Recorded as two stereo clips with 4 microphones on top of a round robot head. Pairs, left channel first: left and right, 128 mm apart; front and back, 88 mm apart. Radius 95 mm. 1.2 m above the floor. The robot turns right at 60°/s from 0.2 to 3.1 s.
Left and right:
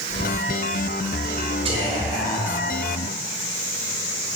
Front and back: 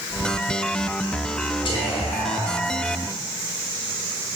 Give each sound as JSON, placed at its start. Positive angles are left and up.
{"t": 1.6, "sound": "whispering", "azimuth_deg": -40, "distance_m": 1.8}